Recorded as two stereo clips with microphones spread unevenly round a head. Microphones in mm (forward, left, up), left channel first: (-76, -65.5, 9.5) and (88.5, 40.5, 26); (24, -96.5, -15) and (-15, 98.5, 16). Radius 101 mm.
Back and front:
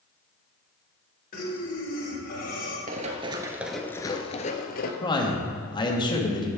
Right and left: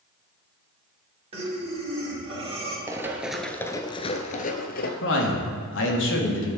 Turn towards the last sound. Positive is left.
turn(degrees=-85)